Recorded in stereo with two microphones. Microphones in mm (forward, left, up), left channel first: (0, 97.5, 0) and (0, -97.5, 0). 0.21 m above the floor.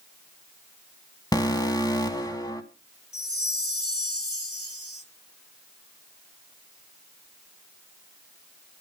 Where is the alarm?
20° left (ahead or behind), 1.7 m.